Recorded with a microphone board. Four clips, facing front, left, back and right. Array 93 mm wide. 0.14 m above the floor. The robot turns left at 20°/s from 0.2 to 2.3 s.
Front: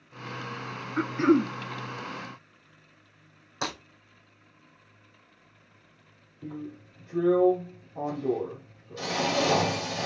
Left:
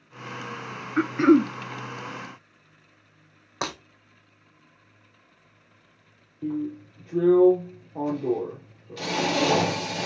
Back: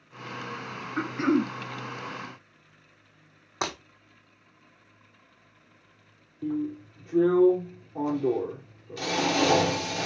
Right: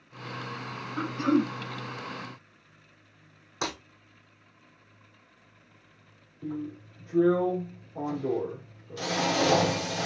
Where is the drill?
130° left, 3 m.